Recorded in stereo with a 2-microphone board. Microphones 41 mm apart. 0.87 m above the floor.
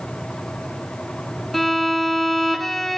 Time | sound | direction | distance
1.5 | a violin | 5° left (ahead or behind) | 1.7 m